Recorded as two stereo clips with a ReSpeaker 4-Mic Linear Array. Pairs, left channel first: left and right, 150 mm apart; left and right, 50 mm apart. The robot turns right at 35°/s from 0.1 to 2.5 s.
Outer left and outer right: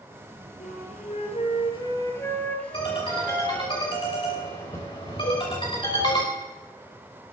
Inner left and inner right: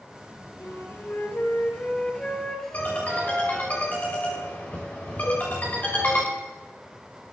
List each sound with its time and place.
0.6 s a flute: 105° left, 2 m; by 3.7 s 170° left, 2 m
2.7 s a ringtone: 35° left (ahead or behind), 5 m
5.2 s a cowbell: 50° left (ahead or behind), 9.5 m